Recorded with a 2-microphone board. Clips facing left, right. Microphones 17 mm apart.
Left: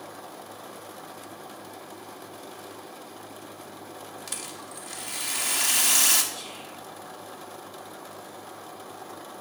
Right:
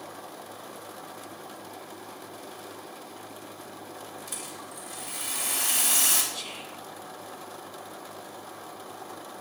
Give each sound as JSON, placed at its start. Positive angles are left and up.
{"t": 4.3, "sound": "a rattle", "side_deg": 60, "distance_m": 0.9}
{"t": 6.3, "sound": "whispering", "side_deg": -40, "distance_m": 1.2}